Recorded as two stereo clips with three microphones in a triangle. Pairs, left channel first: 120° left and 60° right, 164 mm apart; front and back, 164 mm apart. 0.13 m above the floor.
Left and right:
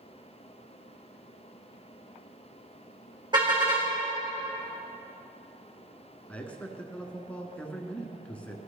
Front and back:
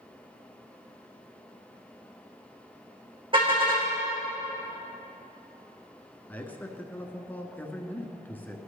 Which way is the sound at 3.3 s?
120° right.